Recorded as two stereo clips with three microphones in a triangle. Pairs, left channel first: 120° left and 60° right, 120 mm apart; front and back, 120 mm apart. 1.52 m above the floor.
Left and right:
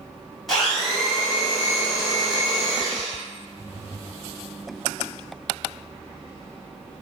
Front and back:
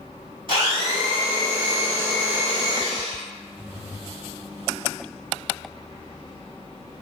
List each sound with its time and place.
0.5 s a blender: 155° right, 1.6 m